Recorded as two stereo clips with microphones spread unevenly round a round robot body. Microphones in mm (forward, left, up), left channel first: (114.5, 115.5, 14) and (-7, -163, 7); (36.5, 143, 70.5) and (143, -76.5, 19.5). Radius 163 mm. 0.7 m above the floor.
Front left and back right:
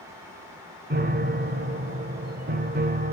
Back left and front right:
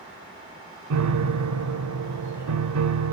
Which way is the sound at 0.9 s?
55° right.